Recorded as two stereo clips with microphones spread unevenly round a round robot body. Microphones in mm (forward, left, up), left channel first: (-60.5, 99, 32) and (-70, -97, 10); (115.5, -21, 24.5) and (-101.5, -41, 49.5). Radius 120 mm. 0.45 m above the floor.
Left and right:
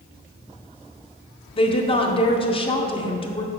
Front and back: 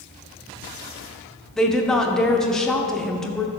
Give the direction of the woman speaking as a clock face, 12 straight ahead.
10 o'clock.